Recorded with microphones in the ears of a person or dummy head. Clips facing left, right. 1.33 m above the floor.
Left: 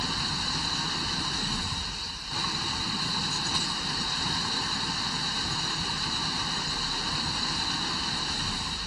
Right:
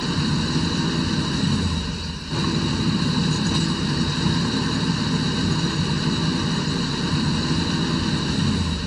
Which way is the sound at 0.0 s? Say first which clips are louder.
Right 13 dB; 55° right (ahead or behind).